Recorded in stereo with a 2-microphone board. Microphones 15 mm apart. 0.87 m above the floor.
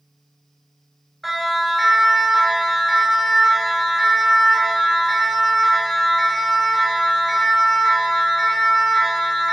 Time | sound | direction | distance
1.2 | a siren | 5° right (ahead or behind) | 8 m